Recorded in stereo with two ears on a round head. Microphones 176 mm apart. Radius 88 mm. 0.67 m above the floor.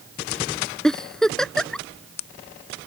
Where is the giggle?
5° left (ahead or behind).